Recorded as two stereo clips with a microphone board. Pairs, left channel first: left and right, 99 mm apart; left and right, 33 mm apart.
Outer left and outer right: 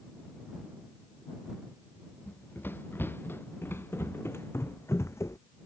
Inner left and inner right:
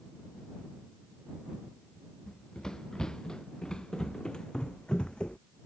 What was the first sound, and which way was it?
Running footsteps, 20° left (ahead or behind).